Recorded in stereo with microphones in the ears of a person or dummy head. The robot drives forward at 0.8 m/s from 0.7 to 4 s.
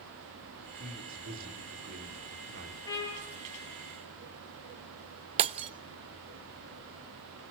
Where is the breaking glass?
30° right (ahead or behind), 1.0 m.